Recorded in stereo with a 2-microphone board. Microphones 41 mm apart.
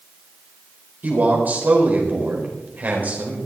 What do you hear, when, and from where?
1.0 s a man speaking: 45° right (ahead or behind), 4 m